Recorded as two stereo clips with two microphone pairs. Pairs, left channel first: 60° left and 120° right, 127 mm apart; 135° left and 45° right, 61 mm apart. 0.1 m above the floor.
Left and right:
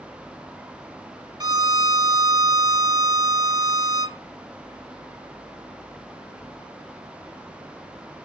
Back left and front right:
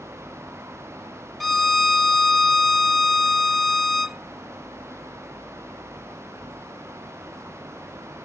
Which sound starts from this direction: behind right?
A violin, at 1.4 s.